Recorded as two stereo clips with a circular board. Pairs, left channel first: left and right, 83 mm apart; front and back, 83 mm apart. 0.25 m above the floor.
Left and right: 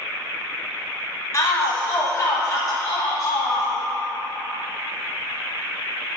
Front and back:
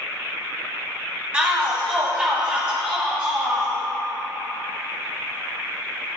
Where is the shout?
110° left, 1.3 m.